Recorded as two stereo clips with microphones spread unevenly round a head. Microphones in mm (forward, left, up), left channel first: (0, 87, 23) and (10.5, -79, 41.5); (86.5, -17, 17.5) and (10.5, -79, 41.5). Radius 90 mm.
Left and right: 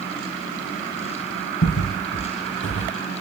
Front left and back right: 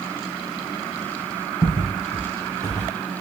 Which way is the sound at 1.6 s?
110° left.